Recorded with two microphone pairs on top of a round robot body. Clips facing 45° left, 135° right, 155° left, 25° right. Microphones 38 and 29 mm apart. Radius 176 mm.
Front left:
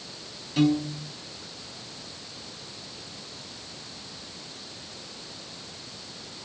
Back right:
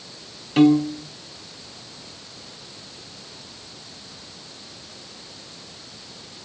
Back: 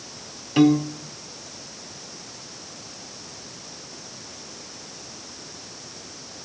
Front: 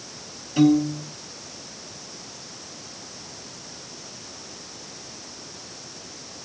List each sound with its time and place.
0.6 s a piano: 170° right, 1.5 m